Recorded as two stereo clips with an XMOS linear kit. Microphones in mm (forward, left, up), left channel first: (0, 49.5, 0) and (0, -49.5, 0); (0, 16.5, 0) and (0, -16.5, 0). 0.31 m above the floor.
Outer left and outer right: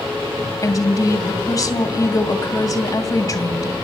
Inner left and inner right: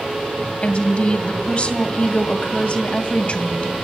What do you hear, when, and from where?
0.6 s a woman speaking: 40° left (ahead or behind), 2 m